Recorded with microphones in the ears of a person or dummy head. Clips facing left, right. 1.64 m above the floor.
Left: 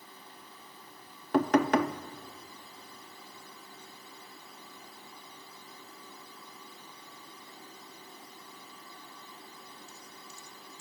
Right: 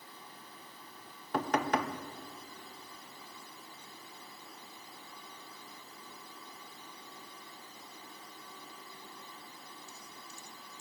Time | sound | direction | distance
1.3 | knocking | 55° left (ahead or behind) | 0.8 m